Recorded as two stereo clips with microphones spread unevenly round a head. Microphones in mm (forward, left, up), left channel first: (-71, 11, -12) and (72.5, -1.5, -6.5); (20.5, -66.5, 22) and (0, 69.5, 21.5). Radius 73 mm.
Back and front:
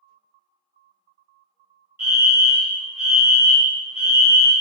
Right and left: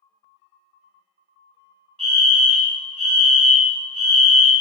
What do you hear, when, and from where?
2.0 s a fire alarm: 65° left, 1.4 m